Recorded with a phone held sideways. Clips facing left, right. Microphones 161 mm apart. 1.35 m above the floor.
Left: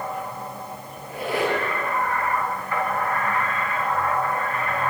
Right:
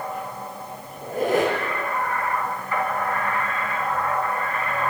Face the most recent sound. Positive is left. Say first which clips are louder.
# right 4 dB
turn(degrees=-45)  # may be behind; listen again after turning